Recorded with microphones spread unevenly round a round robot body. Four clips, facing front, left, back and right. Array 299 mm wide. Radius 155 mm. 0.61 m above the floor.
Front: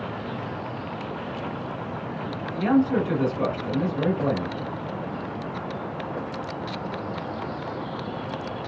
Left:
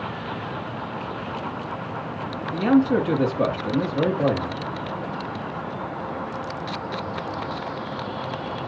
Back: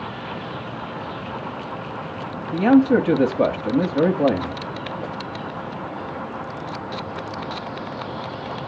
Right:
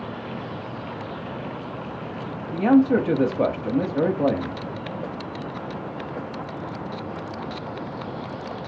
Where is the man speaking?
170° right, 1.0 m.